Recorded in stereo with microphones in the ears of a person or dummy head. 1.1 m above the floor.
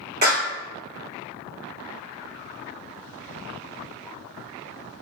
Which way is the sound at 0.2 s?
50° right (ahead or behind).